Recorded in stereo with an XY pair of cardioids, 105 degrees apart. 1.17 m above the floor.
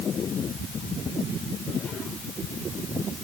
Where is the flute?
I don't hear a flute.